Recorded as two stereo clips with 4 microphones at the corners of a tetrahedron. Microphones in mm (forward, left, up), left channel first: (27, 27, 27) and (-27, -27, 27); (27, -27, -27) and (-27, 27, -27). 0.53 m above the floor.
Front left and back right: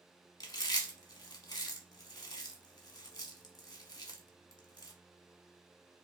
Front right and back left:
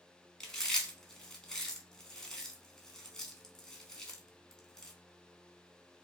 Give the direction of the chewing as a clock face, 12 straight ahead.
11 o'clock.